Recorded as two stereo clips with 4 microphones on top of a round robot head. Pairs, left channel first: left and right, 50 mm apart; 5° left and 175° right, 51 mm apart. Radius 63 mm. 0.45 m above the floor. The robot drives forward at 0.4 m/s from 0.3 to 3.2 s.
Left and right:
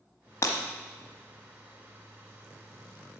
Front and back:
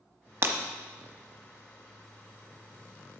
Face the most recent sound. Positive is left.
turn(degrees=160)